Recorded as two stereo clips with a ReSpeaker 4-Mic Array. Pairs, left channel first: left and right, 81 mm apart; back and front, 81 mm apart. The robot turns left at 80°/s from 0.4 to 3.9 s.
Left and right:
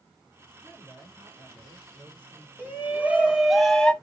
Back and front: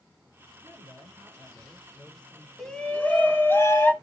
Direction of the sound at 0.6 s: 30° left.